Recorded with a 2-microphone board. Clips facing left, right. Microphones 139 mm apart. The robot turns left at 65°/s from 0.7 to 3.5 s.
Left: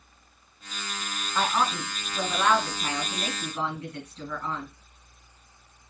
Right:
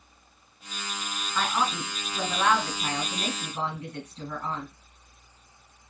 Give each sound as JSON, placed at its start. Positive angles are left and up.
{"t": 1.4, "sound": "a woman speaking", "azimuth_deg": 50, "distance_m": 1.8}